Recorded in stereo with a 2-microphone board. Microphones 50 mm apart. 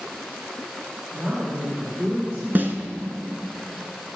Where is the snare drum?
40° right (ahead or behind), 1.4 m.